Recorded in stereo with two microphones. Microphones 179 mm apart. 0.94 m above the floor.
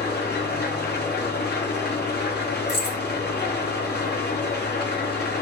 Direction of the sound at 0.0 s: 75° left (ahead or behind).